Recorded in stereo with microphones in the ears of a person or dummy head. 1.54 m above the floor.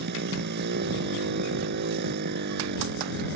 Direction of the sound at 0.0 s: 50° right (ahead or behind).